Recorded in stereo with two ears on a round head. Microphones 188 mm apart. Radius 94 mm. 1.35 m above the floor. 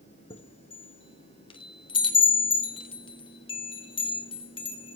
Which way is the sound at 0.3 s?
25° left (ahead or behind).